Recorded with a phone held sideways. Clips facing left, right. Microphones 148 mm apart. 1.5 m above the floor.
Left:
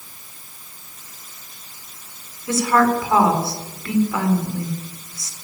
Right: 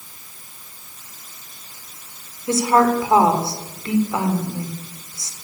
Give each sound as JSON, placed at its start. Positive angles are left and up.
{"t": 2.5, "sound": "a woman speaking", "side_deg": -25, "distance_m": 4.0}